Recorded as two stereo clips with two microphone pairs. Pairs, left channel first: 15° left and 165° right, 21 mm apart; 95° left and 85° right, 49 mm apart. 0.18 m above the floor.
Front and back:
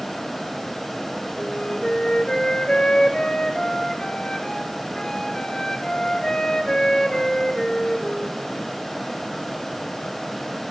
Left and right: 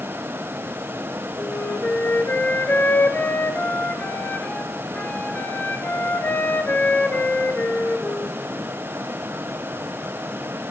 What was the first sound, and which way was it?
A flute, 50° left.